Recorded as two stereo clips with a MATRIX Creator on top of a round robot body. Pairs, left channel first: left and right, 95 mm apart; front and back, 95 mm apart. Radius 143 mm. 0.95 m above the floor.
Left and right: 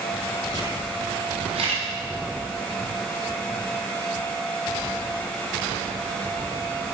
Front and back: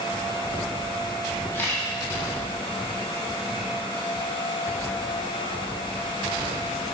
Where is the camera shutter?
70° right, 1.4 m.